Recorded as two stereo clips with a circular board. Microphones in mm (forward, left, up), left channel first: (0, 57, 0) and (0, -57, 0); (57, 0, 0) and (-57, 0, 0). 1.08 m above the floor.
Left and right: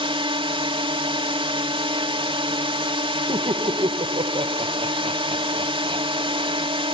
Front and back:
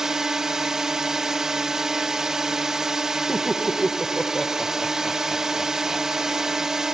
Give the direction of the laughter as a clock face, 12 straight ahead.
3 o'clock.